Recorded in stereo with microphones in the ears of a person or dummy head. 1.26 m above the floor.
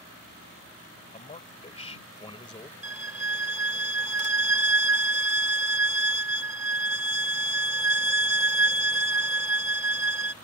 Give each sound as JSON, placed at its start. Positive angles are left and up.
{"t": 1.1, "sound": "a man speaking", "side_deg": 30}
{"t": 2.8, "sound": "a violin", "side_deg": -15}